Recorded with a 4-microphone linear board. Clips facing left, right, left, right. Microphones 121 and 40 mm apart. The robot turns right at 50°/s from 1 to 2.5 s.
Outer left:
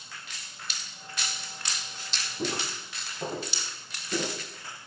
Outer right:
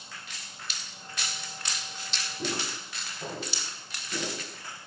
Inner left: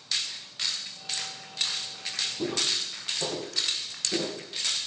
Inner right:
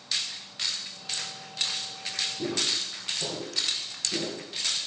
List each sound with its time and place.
2.4 s footsteps: 30° left (ahead or behind), 2.5 m; by 4.3 s 40° left (ahead or behind), 3.5 m